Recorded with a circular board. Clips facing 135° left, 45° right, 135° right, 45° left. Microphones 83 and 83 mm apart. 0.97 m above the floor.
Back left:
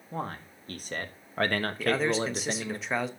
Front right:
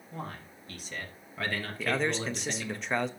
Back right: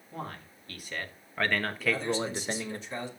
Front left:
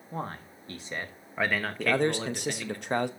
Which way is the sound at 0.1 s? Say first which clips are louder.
Back left 5 dB, front left 4 dB; 95° left.